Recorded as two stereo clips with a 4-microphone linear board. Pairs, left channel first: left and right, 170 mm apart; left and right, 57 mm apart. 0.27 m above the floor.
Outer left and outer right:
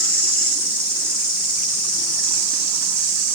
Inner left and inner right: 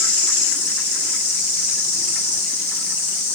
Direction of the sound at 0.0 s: 55° left (ahead or behind).